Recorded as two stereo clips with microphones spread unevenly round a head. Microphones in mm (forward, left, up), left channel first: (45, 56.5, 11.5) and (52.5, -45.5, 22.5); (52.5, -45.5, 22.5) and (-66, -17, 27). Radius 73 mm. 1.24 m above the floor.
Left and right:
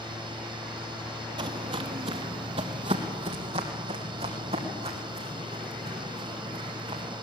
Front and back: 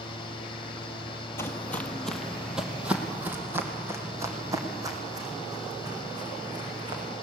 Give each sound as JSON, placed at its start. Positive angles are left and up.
{"t": 0.0, "sound": "a fan", "azimuth_deg": -55, "distance_m": 2.0}
{"t": 1.4, "sound": "footsteps", "azimuth_deg": -80, "distance_m": 1.9}